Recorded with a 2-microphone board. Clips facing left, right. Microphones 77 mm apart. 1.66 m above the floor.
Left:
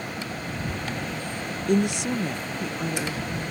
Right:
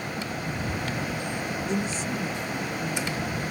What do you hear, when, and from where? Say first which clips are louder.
1.7 s a woman speaking: left 9 dB; 60° left (ahead or behind); by 3.4 s 85° left